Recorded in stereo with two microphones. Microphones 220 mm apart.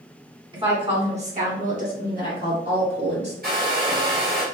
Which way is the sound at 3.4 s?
45° right (ahead or behind).